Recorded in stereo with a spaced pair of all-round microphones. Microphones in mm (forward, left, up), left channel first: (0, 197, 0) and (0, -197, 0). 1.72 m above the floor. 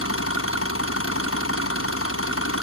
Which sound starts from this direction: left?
An engine running, at 0.0 s.